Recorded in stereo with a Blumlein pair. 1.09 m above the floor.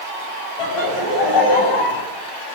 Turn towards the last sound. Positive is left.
turn(degrees=40)